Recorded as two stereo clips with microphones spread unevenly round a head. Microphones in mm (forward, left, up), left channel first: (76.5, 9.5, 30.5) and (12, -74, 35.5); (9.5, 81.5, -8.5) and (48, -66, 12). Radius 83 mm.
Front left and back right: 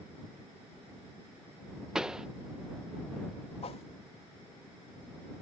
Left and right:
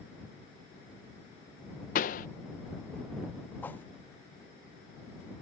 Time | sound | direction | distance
1.9 | a pop | 145° left | ?
3.6 | a whoosh | 25° left | ?